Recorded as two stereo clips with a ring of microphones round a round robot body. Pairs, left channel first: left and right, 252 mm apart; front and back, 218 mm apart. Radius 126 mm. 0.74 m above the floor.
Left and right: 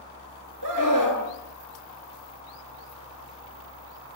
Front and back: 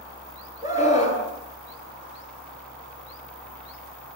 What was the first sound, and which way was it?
A scream, 105° right.